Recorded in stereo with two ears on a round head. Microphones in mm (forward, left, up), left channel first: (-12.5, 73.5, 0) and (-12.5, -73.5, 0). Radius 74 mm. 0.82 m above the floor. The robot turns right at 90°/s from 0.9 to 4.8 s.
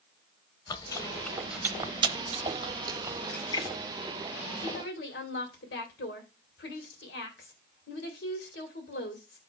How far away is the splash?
About 2 m.